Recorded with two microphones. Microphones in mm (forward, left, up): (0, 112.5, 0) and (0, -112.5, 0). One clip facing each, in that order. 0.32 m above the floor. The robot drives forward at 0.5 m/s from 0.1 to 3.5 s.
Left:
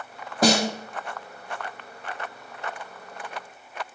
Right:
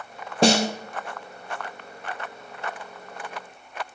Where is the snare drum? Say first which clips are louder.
Right 2 dB; 30° right (ahead or behind), 1.2 m; by 0.8 s 25° right (ahead or behind), 1.4 m.